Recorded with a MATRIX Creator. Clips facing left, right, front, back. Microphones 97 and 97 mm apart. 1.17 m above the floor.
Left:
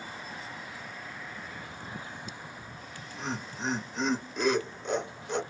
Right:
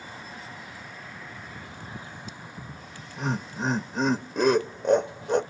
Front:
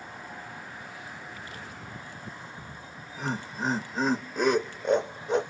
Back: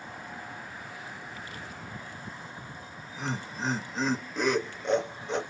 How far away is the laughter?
About 0.7 m.